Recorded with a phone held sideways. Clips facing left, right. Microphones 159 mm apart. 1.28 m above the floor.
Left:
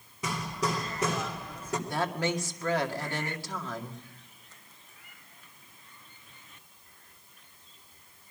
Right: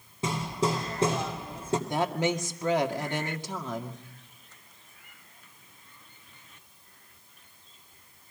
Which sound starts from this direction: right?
Hammering, at 0.2 s.